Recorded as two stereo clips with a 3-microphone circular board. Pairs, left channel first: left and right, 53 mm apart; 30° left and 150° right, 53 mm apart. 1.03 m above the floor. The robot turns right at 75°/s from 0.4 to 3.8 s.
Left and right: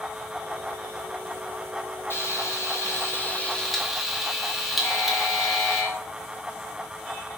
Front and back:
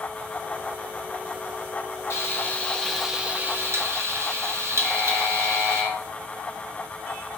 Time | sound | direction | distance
2.1 | frying | 55° left | 0.6 m
4.8 | a buzzer | 115° left | 2.0 m